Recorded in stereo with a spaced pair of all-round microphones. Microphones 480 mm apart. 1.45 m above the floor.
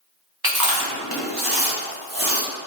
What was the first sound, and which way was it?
Chewing, 50° right (ahead or behind).